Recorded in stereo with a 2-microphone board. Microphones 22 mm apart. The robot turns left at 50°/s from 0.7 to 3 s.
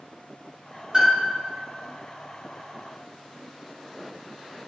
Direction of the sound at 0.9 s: 25° right (ahead or behind).